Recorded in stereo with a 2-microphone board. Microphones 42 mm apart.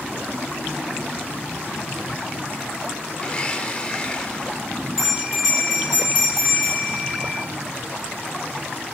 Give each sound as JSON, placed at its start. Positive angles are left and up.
{"t": 3.2, "sound": "a blender", "side_deg": 20, "distance_m": 0.8}
{"t": 5.0, "sound": "a bell", "side_deg": -20, "distance_m": 5.5}